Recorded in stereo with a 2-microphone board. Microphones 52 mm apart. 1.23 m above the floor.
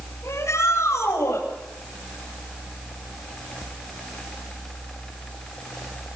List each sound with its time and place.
0.2 s a shout: 80° left, 8.5 m; by 1.4 s 75° left (ahead or behind), 7.5 m